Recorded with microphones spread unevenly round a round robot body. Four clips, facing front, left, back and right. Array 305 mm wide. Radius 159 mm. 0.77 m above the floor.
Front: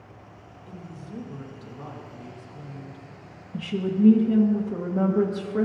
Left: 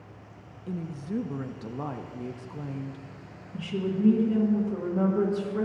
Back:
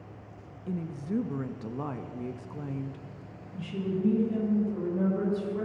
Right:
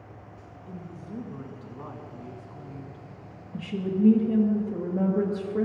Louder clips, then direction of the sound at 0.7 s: Left 7 dB, back 8 dB; 135° left.